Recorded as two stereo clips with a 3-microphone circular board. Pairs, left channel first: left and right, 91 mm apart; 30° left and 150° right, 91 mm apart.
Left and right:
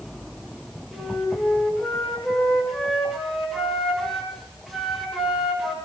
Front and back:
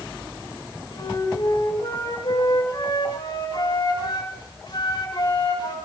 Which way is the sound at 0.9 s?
5° right.